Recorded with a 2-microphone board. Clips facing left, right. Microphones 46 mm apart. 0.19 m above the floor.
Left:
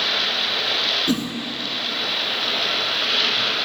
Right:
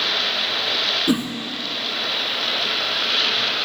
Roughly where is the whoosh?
Centre.